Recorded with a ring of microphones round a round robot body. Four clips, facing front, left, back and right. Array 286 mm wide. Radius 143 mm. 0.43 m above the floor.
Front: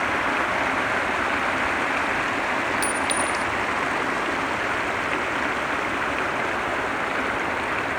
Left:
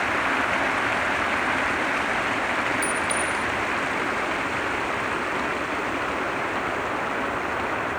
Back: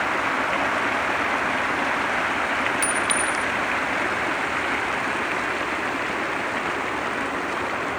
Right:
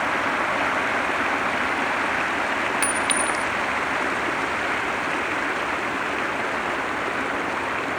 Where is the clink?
100° right, 1.0 m.